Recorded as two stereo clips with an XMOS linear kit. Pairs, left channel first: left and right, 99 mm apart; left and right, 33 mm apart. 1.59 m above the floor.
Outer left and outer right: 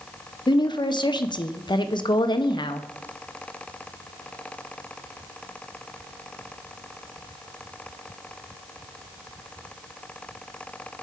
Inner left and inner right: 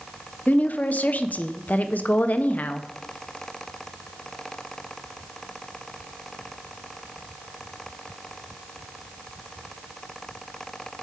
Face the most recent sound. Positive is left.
turn(degrees=50)  # may be behind; listen again after turning